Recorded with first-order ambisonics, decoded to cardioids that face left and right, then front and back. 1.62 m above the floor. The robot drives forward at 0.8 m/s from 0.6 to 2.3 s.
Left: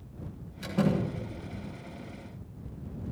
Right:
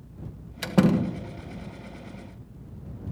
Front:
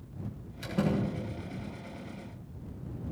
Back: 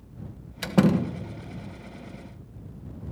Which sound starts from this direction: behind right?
A door slam, at 0.6 s.